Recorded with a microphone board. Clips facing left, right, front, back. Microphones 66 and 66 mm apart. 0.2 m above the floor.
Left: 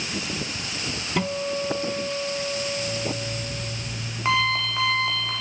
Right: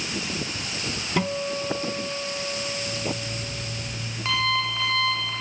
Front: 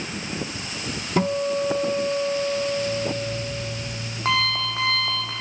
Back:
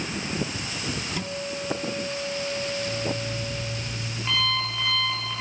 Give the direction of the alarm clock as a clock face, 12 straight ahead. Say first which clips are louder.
Left 2 dB, front 4 dB; 11 o'clock.